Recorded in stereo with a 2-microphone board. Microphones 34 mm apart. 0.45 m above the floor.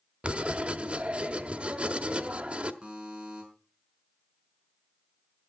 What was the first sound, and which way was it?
Writing, 40° right (ahead or behind).